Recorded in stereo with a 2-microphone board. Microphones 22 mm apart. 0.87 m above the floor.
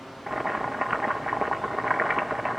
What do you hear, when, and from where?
0.3 s boiling: 10° right (ahead or behind), 1.5 m